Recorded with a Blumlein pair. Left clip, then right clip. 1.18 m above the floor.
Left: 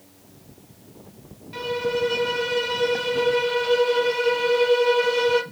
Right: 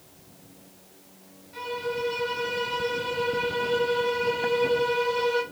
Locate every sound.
1.5 s a violin: 55° left, 0.6 m